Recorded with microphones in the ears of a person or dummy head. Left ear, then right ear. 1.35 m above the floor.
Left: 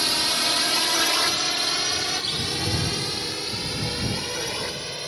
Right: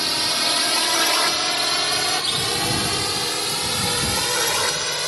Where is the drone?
Centre (ahead or behind); by 5.1 s 50° right (ahead or behind).